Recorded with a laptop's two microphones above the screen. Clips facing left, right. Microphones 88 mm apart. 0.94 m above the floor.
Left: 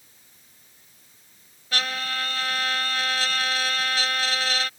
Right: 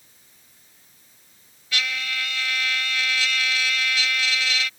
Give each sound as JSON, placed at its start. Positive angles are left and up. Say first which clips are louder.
{"t": 1.7, "sound": "a trumpet", "louder": "even", "side_deg": 40}